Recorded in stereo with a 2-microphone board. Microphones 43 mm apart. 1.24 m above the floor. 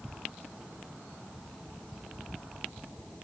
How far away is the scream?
I don't hear a scream.